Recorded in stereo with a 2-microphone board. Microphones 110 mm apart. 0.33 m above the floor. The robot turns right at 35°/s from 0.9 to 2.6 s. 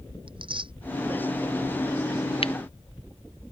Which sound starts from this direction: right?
Tearing paper, at 0.3 s.